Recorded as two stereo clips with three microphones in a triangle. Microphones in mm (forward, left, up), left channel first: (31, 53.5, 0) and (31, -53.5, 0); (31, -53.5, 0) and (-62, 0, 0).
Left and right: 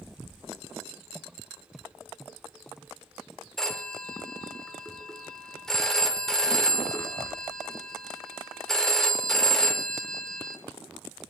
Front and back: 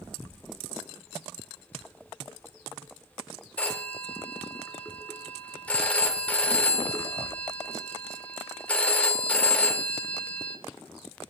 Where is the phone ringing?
15° left, 0.7 m.